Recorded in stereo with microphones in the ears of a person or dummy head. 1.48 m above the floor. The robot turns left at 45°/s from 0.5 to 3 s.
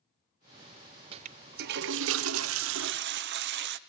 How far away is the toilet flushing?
About 0.7 m.